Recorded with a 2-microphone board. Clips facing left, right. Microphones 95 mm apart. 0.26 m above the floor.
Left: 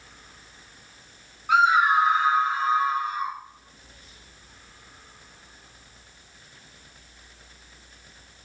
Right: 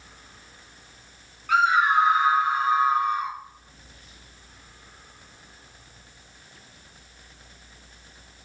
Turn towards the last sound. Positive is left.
turn(degrees=-25)  # may be behind; listen again after turning